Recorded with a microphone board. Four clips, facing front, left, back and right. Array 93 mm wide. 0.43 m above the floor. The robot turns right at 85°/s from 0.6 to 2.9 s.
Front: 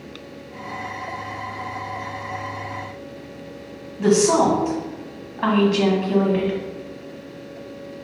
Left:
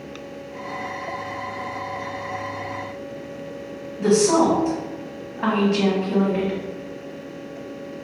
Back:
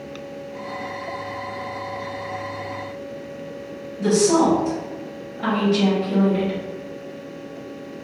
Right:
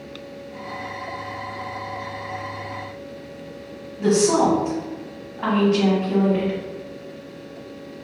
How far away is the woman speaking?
About 1.1 m.